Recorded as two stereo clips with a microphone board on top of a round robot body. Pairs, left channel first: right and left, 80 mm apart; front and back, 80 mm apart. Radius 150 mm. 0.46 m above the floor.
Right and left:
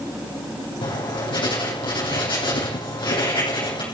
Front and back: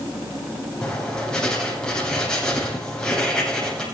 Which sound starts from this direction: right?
Writing, at 0.8 s.